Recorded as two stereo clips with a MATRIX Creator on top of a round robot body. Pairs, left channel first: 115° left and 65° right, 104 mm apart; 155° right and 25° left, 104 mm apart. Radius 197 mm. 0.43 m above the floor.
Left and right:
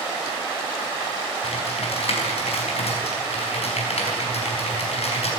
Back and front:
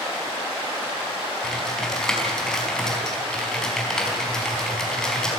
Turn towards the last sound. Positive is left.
turn(degrees=120)